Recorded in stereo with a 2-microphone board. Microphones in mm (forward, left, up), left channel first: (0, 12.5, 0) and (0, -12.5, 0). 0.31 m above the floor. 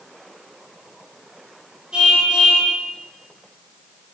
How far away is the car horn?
About 7.5 m.